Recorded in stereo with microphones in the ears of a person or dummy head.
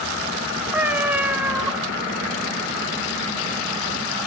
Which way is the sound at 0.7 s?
15° right (ahead or behind).